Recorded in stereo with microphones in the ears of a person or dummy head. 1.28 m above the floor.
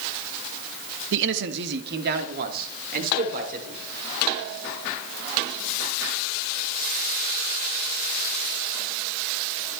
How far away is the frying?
No frying in this recording.